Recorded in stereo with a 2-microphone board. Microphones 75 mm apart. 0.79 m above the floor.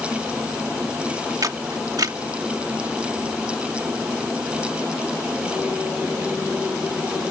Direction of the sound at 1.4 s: 60° right (ahead or behind).